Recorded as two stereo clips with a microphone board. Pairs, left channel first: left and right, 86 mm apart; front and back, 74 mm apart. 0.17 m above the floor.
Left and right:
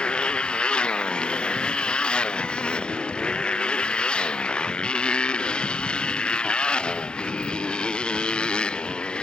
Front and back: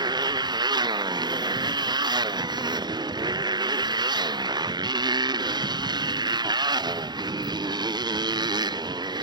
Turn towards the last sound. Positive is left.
turn(degrees=170)